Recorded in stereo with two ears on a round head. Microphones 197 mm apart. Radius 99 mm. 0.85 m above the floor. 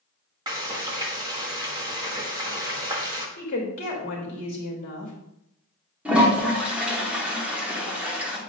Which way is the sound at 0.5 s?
20° right (ahead or behind).